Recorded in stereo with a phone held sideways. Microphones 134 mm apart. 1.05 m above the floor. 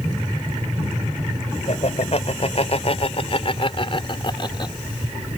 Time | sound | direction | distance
1.7 | laughter | 55° left (ahead or behind) | ?